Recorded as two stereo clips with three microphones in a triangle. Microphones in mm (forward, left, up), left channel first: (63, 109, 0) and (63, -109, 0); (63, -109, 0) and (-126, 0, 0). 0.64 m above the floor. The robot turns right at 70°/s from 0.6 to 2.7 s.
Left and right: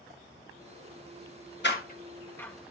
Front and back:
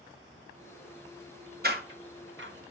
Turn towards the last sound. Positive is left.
turn(degrees=-170)